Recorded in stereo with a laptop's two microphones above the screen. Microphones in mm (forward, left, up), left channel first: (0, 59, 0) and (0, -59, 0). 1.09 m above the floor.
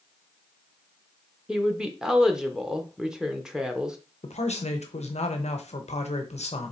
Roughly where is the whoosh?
I don't hear a whoosh.